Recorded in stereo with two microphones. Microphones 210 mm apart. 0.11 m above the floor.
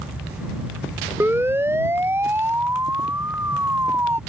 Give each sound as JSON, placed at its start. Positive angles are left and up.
{"t": 1.2, "sound": "a siren", "side_deg": -10}